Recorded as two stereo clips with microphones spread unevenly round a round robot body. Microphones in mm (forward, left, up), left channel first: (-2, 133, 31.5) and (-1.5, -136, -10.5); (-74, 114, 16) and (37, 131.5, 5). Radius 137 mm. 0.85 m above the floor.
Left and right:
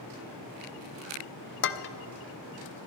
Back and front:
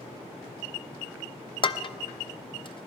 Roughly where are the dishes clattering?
Behind left.